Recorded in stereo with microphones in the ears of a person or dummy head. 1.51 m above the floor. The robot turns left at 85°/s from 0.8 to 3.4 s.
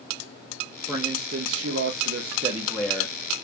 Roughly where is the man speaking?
Ahead.